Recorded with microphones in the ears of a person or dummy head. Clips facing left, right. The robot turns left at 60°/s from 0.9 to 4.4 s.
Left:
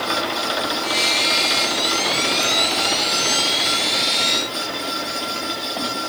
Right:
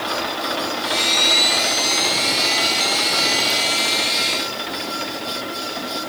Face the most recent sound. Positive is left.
No sound to turn to.